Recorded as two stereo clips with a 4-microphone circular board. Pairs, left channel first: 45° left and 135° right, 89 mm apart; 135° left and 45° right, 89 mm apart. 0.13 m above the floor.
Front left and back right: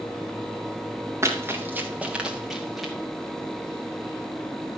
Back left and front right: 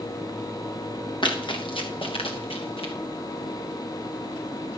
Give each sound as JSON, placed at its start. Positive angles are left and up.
{"t": 1.2, "sound": "running footsteps", "azimuth_deg": 165, "distance_m": 2.5}